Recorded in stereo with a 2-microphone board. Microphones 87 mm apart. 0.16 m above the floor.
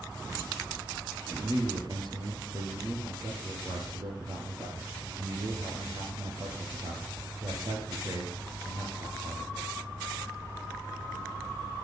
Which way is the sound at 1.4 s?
50° right (ahead or behind).